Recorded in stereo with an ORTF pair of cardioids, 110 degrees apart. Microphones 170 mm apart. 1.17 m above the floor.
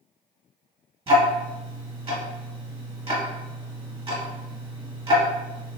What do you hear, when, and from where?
1.1 s ticking: 35° right, 1.2 m